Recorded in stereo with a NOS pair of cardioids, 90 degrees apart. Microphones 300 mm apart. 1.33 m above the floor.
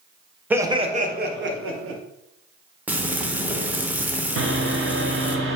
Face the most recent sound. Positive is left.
turn(degrees=-45)